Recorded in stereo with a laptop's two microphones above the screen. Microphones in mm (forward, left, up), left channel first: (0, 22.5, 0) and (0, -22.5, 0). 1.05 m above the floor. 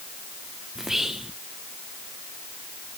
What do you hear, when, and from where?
0.8 s whispering: 5° right (ahead or behind), 0.6 m